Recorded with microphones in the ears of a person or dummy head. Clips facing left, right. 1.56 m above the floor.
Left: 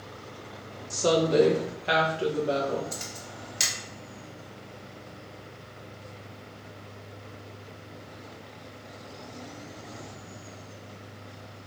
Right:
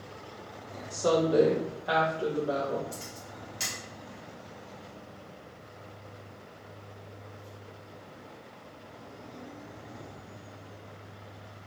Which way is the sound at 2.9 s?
80° left.